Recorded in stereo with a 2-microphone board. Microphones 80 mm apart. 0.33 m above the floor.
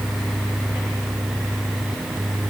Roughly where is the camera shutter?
I don't hear a camera shutter.